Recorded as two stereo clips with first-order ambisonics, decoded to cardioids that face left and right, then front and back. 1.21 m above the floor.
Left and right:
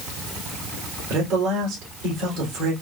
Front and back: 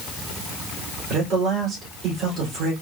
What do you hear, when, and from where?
1.1 s a man speaking: 125° right, 3 m